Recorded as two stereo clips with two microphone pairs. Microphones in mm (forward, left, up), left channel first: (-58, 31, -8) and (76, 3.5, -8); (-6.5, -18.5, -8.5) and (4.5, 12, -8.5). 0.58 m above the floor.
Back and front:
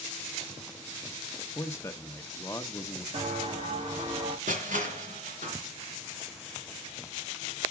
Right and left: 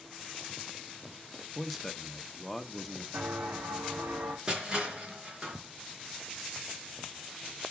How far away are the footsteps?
About 2.5 m.